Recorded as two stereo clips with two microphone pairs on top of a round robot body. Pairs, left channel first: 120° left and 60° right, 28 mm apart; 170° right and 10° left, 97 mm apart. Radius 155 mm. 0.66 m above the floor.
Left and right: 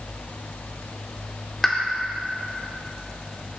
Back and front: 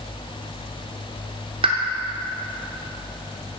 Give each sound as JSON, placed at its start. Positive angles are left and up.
{"t": 1.6, "sound": "a pop", "azimuth_deg": 40, "distance_m": 0.7}